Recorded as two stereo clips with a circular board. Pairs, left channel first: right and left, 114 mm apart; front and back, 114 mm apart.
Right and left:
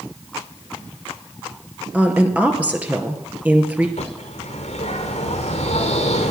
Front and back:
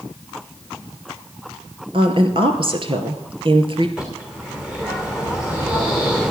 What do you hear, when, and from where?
1.9 s a woman speaking: 165° left, 1.8 m
4.0 s a bird: 95° right, 3 m